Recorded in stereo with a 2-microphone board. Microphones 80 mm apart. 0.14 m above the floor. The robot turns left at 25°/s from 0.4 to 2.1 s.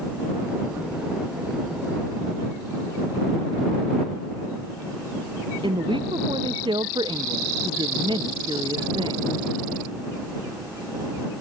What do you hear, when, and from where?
5.6 s a woman speaking: 85° right